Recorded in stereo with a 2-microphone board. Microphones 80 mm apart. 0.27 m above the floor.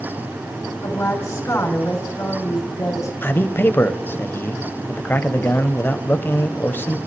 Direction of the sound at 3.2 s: 25° left (ahead or behind).